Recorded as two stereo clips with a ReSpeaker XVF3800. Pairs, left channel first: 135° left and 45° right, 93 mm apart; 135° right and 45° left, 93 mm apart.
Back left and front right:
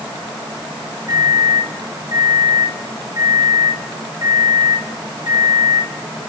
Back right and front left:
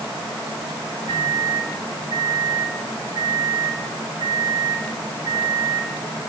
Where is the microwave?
10° left, 6.5 m.